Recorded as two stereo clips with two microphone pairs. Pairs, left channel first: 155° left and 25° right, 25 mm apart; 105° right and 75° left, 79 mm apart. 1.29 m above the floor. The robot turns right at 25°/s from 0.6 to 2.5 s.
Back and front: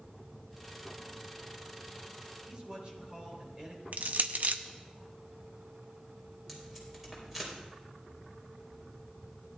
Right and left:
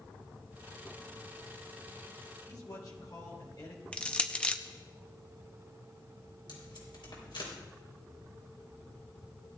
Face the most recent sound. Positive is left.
turn(degrees=-105)